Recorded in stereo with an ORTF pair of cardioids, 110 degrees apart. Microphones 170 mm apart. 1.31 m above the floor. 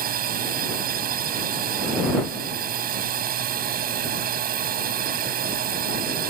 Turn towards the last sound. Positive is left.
turn(degrees=-60)